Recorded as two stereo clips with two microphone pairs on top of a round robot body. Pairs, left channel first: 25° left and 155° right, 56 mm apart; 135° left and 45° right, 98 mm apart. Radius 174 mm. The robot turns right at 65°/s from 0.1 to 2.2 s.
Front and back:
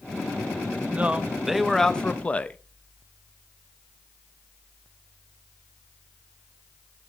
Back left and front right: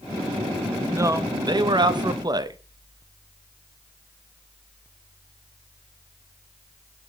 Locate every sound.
0.9 s a man speaking: 100° right, 0.8 m; by 2.6 s 15° right, 0.8 m